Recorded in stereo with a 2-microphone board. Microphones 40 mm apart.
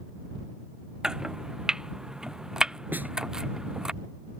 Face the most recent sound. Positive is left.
turn(degrees=-50)  # may be behind; listen again after turning